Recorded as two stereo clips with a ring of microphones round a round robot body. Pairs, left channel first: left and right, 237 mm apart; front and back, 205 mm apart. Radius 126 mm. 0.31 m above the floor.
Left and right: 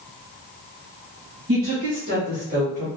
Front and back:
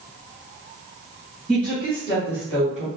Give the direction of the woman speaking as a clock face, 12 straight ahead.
3 o'clock.